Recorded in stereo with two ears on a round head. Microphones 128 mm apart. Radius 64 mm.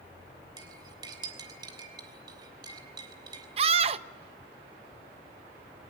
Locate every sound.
0.6 s cutlery clinking: 30° right (ahead or behind), 3.5 m
3.6 s a scream: 40° right (ahead or behind), 0.7 m